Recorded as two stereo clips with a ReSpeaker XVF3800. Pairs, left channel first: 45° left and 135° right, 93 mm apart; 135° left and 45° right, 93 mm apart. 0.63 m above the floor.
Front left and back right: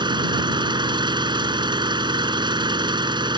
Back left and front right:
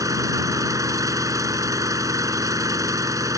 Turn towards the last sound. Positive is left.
turn(degrees=-100)